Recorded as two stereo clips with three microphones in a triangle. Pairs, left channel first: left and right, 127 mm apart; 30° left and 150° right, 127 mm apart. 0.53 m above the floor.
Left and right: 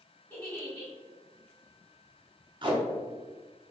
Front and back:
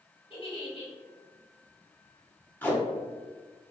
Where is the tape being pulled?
45° right, 0.8 m.